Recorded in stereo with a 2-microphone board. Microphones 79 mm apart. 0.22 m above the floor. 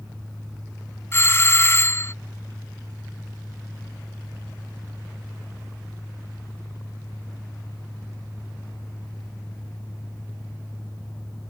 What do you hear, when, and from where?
1.1 s a doorbell: 35° left (ahead or behind)